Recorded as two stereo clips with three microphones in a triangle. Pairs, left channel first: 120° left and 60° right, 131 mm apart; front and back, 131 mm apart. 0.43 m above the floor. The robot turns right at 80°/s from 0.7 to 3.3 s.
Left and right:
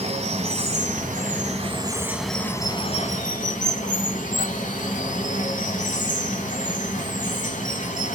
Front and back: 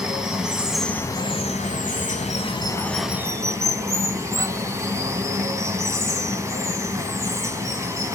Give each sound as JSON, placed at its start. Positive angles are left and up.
{"t": 0.0, "sound": "running water", "azimuth_deg": -95, "distance_m": 1.2}